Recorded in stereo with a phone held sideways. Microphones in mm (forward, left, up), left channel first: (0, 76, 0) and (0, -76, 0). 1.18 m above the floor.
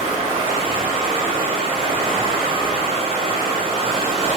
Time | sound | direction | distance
0.0 | running water | 40° right (ahead or behind) | 1.8 m